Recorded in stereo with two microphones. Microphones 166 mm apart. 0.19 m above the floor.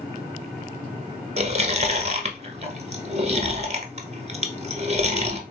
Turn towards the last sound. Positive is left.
turn(degrees=-40)  # may be behind; listen again after turning